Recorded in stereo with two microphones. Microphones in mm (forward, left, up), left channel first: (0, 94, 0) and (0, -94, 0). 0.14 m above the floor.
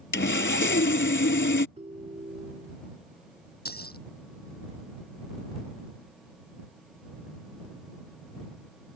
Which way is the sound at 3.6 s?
55° left (ahead or behind).